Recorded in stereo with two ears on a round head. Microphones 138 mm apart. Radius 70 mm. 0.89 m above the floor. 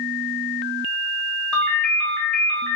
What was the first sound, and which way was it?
A ringtone, 10° left (ahead or behind).